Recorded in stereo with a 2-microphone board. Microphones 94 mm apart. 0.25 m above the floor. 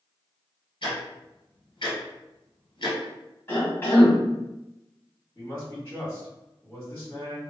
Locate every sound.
0.8 s ticking: 60° left (ahead or behind), 1.4 m
3.5 s a cough: 25° left (ahead or behind), 1.3 m
5.3 s a man speaking: 25° left (ahead or behind), 1.7 m